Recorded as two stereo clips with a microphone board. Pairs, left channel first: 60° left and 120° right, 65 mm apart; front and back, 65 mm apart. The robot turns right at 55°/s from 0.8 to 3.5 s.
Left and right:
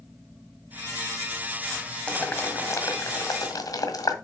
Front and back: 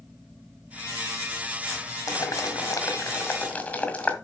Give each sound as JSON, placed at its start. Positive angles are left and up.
{"t": 2.1, "sound": "boiling", "azimuth_deg": -10, "distance_m": 1.7}